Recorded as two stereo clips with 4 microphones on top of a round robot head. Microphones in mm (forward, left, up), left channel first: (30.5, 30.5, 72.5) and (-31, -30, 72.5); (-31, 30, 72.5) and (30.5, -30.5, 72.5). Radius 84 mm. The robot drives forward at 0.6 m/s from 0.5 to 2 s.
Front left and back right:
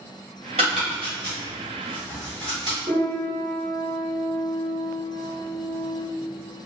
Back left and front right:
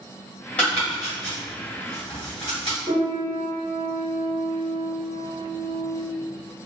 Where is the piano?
155° right, 1.4 m.